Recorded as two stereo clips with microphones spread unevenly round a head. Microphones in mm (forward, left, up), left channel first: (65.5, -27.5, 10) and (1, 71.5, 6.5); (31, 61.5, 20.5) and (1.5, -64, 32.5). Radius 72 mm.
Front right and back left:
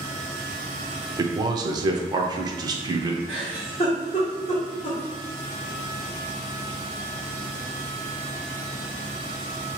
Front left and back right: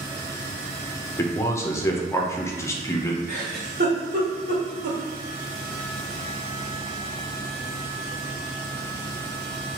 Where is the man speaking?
115° left, 0.6 m.